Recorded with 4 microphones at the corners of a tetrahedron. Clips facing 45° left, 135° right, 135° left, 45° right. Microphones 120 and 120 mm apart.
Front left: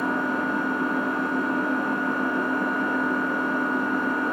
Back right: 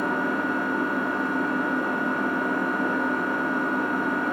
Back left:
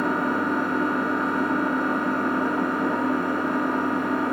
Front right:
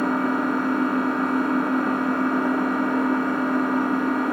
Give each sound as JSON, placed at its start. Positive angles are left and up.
{"t": 0.0, "sound": "an engine running", "azimuth_deg": -45, "distance_m": 1.1}